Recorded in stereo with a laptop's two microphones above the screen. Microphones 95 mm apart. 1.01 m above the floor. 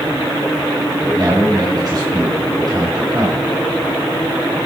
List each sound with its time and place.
1.0 s a man speaking: 45° right (ahead or behind), 5.5 m